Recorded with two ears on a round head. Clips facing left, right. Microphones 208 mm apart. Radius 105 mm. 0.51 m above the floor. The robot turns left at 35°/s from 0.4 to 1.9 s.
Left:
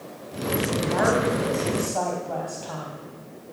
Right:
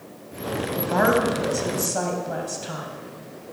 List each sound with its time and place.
0.8 s a woman speaking: 110° right, 3 m; by 2.9 s 150° right, 3 m